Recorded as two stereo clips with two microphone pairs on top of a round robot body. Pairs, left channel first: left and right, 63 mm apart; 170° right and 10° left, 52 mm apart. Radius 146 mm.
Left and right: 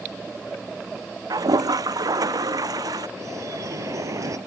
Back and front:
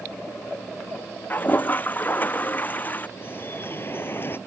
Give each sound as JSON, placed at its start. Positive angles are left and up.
{"t": 1.3, "sound": "a toilet flushing", "azimuth_deg": -115}
{"t": 3.2, "sound": "dripping", "azimuth_deg": -125}